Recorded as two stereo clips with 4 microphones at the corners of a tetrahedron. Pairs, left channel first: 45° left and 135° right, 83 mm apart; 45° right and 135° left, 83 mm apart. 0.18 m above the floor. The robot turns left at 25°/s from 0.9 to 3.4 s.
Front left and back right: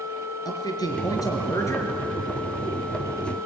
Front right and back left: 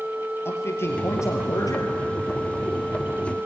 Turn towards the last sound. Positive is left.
turn(degrees=-50)